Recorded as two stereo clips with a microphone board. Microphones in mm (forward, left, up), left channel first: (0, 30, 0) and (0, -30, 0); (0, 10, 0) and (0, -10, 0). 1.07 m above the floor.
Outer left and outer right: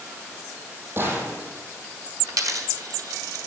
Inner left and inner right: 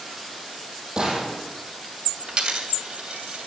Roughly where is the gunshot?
Right.